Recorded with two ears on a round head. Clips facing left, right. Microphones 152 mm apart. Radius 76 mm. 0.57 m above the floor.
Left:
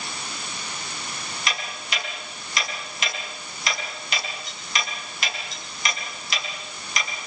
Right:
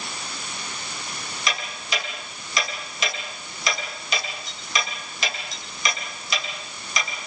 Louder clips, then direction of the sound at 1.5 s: Right 3 dB; 70° right (ahead or behind).